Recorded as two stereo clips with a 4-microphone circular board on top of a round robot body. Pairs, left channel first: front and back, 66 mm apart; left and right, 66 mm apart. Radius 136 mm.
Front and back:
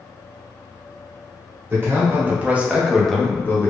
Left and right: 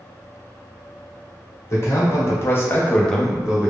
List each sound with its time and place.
1.7 s a man speaking: 130° left, 1.4 m; by 3.7 s 30° right, 0.8 m